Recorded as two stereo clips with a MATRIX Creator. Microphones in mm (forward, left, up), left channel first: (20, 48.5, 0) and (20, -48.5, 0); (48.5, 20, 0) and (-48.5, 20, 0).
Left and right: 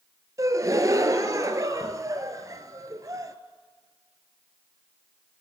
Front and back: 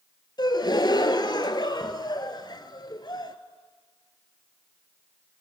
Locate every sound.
0.4 s a gasp: 35° right, 0.6 m